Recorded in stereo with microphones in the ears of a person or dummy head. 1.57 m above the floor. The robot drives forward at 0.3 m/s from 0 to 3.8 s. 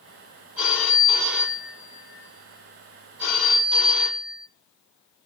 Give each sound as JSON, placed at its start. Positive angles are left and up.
{"t": 0.6, "sound": "a phone ringing", "side_deg": -5, "distance_m": 2.0}